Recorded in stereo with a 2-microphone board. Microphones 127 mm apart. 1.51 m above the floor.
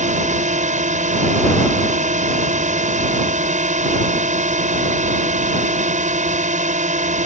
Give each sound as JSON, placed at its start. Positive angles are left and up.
{"t": 0.0, "sound": "a drone", "side_deg": -65}